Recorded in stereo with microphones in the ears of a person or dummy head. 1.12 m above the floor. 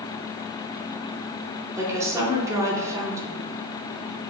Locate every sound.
1.8 s a woman speaking: 15° right (ahead or behind), 0.7 m